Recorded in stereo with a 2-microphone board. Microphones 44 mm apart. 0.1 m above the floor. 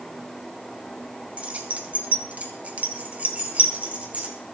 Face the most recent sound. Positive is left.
turn(degrees=-30)  # may be behind; listen again after turning